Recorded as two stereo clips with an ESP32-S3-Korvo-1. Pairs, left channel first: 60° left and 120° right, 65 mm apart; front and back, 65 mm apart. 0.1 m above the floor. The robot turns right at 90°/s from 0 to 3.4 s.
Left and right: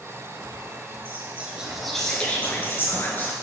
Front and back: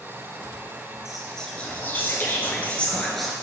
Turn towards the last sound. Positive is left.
turn(degrees=110)